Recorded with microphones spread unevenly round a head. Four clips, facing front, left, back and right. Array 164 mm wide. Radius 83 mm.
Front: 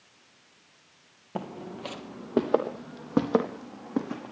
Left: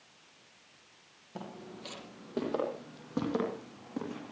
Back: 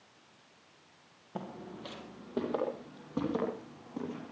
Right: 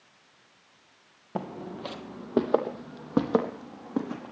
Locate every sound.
1.4 s footsteps: 55° right, 2.5 m; by 4.3 s 30° right, 5 m